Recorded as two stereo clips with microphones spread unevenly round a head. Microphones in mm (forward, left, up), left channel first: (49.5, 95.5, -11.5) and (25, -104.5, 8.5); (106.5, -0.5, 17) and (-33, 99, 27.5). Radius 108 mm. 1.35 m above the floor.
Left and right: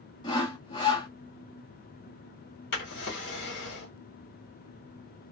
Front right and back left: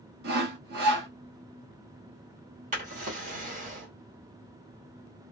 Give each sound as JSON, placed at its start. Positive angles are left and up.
{"t": 0.2, "sound": "sawing", "azimuth_deg": 155, "distance_m": 0.6}
{"t": 2.7, "sound": "a drawer", "azimuth_deg": 120, "distance_m": 1.3}